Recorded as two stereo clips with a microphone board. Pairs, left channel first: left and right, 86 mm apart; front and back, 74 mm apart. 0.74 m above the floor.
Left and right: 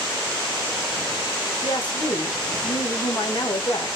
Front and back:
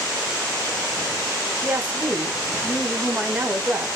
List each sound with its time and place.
1.6 s a woman speaking: 115° left, 2.5 m